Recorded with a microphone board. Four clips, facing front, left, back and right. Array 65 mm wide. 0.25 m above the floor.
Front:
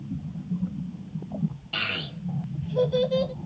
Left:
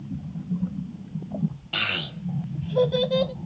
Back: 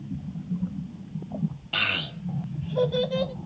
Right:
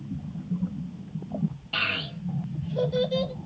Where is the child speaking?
145° left, 1.0 m; by 3.3 s 110° left, 1.5 m.